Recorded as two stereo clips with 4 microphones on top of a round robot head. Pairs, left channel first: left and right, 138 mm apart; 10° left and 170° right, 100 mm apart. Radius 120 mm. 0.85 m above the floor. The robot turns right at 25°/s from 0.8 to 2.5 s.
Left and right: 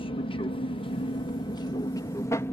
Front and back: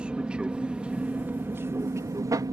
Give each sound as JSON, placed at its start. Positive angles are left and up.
{"t": 0.0, "sound": "an aircraft", "azimuth_deg": 115}